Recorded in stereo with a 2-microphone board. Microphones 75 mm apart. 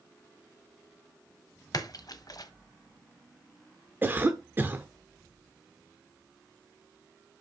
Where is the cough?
25° right (ahead or behind), 0.9 m.